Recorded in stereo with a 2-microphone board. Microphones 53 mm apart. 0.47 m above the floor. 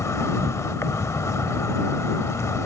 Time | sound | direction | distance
0.0 | an insect | 70° left (ahead or behind) | ?